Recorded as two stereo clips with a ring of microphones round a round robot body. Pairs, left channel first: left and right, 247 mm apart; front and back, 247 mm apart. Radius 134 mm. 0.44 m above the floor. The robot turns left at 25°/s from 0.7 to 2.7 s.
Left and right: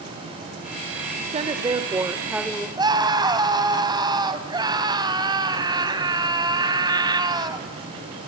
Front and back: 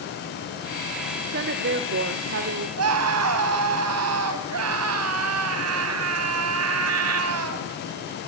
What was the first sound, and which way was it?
A woman speaking, 145° right.